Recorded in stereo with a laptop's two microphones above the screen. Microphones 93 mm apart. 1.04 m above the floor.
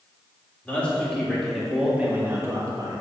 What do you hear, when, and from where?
0.7 s a man speaking: 15° left (ahead or behind), 1.9 m; by 3.0 s 45° right (ahead or behind), 1.4 m